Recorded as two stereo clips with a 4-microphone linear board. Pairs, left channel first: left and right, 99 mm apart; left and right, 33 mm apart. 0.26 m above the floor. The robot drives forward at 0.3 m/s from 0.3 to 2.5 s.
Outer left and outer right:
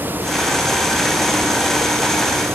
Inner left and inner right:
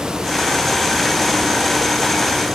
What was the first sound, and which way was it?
Only background noise.